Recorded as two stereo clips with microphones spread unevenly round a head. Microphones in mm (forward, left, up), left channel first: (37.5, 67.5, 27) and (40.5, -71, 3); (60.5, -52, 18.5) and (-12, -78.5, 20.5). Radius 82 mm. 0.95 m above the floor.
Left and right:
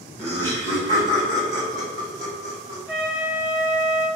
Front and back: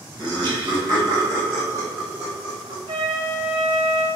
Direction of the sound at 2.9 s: Straight behind.